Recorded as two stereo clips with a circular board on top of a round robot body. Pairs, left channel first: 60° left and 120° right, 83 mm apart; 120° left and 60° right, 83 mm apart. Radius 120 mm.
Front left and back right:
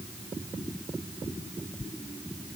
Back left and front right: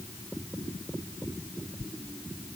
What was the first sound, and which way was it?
Only background noise.